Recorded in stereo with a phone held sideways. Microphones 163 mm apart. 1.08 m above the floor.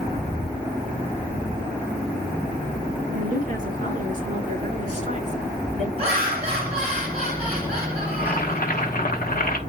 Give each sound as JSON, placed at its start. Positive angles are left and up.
{"t": 3.1, "sound": "a woman speaking", "side_deg": -50, "distance_m": 4.5}
{"t": 6.0, "sound": "laughter", "side_deg": -40, "distance_m": 6.5}
{"t": 8.1, "sound": "boiling", "side_deg": 60, "distance_m": 1.1}